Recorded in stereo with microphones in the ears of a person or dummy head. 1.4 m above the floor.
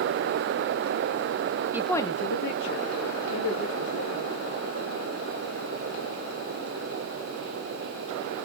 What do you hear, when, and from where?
1.7 s a woman speaking: 10° right (ahead or behind), 0.6 m; by 4.3 s 85° left, 3 m